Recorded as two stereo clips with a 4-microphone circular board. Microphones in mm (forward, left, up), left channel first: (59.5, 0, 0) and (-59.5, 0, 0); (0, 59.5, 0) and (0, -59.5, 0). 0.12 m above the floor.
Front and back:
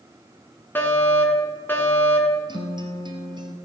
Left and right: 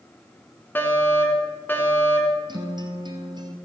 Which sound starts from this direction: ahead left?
A fire alarm, at 0.8 s.